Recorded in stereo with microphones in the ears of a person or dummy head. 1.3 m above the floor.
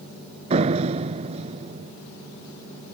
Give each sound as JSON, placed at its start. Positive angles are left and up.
{"t": 0.5, "sound": "a door slam", "side_deg": -35}